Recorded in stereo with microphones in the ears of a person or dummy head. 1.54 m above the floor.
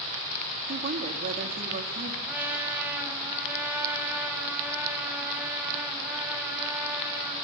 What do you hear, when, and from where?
0.7 s a woman speaking: 50° right (ahead or behind), 3 m
2.3 s a trumpet: 10° right (ahead or behind), 5 m